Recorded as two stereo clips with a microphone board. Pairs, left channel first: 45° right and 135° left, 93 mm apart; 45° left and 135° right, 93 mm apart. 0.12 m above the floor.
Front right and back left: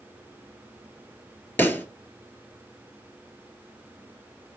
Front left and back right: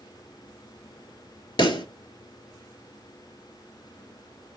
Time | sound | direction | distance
1.6 | a pop | 20° left | 0.5 m